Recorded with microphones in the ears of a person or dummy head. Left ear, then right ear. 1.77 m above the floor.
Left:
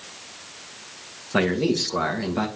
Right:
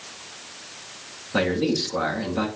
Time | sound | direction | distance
1.3 | a man speaking | 20° left (ahead or behind) | 1.6 m